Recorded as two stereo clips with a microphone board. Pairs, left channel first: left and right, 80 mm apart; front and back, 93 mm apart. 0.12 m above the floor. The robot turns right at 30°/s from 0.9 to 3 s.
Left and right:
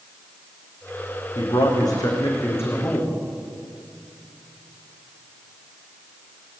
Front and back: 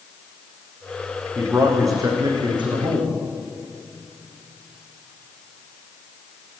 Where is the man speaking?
110° left, 6.5 m; by 3.1 s 160° left, 6.5 m.